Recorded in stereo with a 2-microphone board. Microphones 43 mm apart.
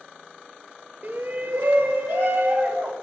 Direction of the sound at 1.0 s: 45° right (ahead or behind).